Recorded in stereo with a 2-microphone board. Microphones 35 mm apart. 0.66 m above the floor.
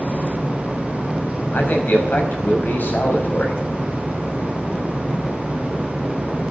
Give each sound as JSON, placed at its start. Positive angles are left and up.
{"t": 1.5, "sound": "a man speaking", "side_deg": 65, "distance_m": 5.0}